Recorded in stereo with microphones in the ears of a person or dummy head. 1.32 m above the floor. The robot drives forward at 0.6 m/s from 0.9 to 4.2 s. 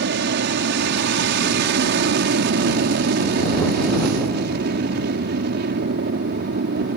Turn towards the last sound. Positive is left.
turn(degrees=-50)  # may be behind; listen again after turning